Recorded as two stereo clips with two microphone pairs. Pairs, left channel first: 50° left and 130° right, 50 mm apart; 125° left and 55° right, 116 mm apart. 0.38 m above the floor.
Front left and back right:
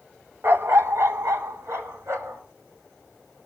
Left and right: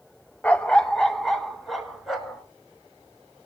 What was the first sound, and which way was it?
A dog barking, 160° right.